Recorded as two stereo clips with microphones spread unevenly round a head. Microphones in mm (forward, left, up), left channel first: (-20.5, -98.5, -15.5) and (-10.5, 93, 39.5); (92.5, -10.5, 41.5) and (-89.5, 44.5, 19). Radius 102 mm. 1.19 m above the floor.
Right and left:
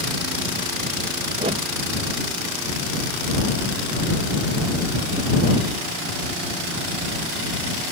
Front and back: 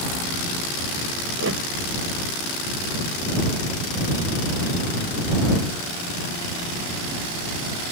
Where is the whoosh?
145° left.